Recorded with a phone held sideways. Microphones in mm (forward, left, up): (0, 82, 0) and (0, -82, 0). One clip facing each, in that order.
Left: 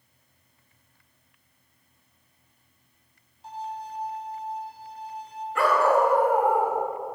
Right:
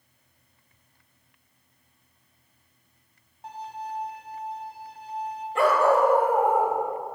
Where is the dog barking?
30° right (ahead or behind), 1.9 m.